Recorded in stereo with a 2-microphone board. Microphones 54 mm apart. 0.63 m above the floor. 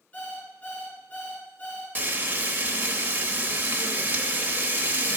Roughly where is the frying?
Right.